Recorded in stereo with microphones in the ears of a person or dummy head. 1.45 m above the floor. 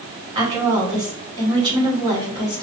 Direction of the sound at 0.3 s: 30° right (ahead or behind).